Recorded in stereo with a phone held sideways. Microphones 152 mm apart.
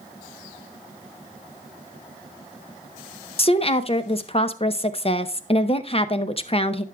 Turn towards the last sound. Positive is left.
turn(degrees=40)  # may be behind; listen again after turning